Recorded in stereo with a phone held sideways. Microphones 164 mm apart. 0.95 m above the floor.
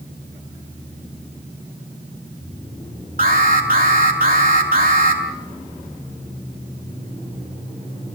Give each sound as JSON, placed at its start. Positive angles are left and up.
{"t": 3.2, "sound": "an alarm", "side_deg": -60, "distance_m": 6.5}